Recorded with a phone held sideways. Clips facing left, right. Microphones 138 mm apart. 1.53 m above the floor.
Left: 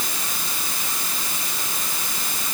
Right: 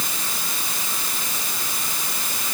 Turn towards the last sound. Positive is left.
No sound to turn to.